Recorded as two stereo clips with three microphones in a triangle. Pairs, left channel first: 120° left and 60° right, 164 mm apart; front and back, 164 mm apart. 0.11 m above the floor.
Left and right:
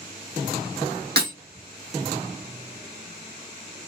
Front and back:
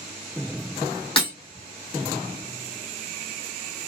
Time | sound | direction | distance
1.2 | breaking glass | 55° right | 3 m